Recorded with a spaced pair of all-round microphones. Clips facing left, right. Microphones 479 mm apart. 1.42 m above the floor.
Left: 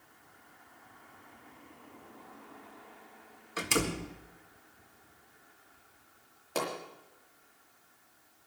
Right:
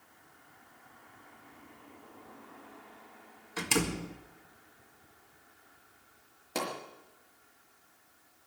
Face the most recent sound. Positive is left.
turn(degrees=-40)  # may be behind; listen again after turning